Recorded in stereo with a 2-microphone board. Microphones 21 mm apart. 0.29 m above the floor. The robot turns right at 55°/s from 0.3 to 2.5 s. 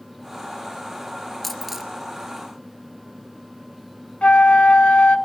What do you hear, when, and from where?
1.4 s a dropped coin: 5° left (ahead or behind), 2 m; by 1.9 s 20° right (ahead or behind), 2 m
4.2 s a flute: 75° left (ahead or behind), 1.2 m